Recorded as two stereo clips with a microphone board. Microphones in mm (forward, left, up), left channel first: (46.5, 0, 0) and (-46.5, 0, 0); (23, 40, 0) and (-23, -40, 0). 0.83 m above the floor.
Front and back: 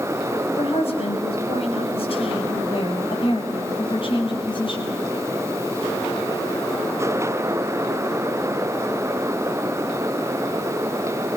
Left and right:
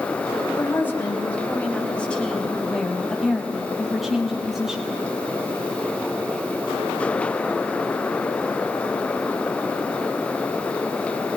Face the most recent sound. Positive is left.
turn(degrees=-35)